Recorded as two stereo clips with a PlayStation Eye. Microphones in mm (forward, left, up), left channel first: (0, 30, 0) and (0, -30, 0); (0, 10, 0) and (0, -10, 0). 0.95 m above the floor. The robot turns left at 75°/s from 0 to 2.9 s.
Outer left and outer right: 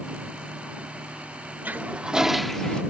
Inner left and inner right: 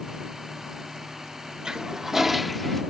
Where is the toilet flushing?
120° right; by 2.8 s 155° left.